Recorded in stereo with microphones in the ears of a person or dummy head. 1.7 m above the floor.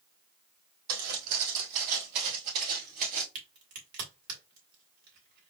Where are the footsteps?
50° right (ahead or behind), 3 m; by 3.2 s 35° right (ahead or behind), 2 m.